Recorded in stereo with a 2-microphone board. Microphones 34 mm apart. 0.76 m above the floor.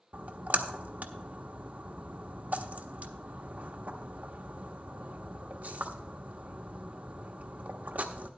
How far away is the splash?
About 1.0 m.